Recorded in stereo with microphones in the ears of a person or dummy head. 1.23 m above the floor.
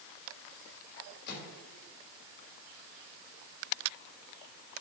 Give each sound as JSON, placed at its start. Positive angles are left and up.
{"t": 1.3, "sound": "a microwave", "side_deg": 60, "distance_m": 3.5}